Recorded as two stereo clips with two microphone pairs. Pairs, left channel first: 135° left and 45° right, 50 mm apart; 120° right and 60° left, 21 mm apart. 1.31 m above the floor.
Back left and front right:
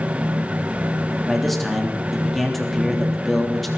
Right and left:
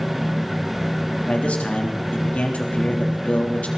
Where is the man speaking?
135° right, 3.5 m.